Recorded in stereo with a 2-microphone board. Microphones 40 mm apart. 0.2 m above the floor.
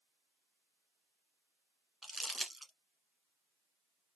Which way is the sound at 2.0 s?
5° right (ahead or behind).